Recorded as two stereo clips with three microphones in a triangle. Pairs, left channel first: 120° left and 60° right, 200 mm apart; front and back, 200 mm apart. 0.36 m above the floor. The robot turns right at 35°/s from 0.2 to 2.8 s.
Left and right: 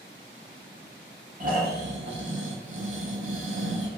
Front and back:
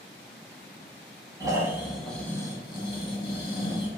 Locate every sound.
1.4 s snoring: 110° right, 0.7 m; by 3.9 s 60° right, 0.7 m